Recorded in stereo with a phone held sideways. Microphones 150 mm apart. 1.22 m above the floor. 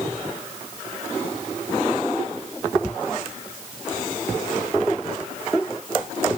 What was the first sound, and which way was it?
Only background noise.